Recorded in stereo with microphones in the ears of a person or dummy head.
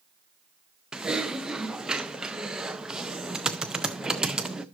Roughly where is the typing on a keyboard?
Centre.